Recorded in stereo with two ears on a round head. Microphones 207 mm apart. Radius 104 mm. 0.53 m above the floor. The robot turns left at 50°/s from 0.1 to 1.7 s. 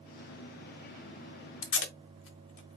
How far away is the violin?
No violin in this recording.